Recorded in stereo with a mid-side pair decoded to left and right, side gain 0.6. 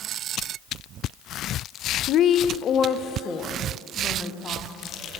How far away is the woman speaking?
About 0.5 m.